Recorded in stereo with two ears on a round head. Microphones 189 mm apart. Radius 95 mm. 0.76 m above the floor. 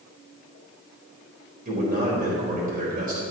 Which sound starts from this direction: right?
A man speaking, at 1.6 s.